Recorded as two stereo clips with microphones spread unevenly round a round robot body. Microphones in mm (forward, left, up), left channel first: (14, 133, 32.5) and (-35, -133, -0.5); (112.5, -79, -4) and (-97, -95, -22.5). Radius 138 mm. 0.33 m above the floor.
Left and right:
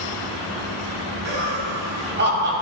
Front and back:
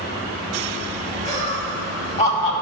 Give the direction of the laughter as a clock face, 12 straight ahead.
2 o'clock.